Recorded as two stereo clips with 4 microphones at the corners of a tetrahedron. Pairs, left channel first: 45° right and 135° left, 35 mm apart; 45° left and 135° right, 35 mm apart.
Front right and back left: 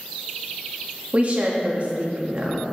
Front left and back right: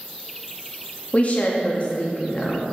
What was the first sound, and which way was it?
A woman speaking, 90° left.